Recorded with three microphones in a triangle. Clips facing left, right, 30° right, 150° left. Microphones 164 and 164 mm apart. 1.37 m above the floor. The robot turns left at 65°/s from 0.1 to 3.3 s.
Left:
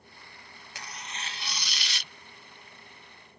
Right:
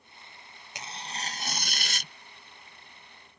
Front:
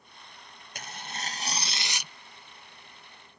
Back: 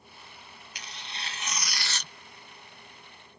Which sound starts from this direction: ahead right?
Tearing paper, at 0.8 s.